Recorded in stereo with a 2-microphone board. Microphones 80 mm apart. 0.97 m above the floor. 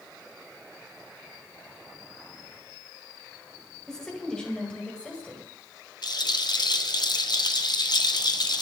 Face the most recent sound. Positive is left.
turn(degrees=60)  # may be behind; listen again after turning